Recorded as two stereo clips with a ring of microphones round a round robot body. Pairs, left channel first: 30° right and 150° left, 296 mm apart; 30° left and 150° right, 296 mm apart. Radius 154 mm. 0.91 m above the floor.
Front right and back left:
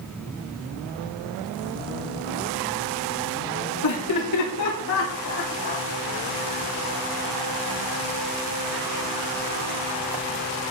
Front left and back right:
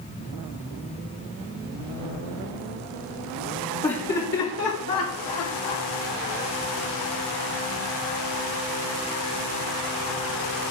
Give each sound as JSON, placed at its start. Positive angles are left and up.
{"t": 3.8, "sound": "laughter", "azimuth_deg": -40, "distance_m": 2.0}